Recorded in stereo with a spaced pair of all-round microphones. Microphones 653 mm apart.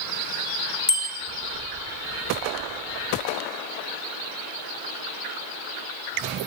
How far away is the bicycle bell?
About 2.5 m.